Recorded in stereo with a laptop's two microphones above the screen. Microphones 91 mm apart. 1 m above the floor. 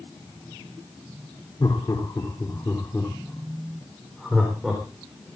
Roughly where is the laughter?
Left.